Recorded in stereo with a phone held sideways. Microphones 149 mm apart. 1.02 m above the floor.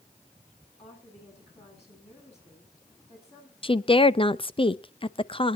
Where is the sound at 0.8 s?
45° left (ahead or behind), 9.5 m.